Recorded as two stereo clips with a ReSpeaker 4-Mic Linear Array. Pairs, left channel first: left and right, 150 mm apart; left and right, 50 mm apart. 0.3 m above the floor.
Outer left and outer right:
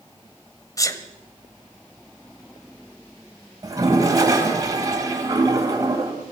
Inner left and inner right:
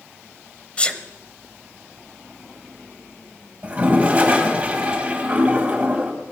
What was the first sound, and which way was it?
A sneeze, 20° left (ahead or behind).